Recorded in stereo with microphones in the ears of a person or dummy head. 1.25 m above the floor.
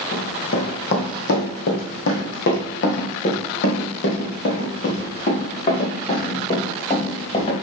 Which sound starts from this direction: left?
Running footsteps, at 0.1 s.